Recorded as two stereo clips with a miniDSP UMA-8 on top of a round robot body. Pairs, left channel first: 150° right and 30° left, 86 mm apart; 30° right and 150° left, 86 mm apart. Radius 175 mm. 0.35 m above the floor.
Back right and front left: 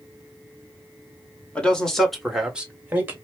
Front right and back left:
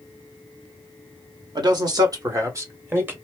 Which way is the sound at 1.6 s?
135° left.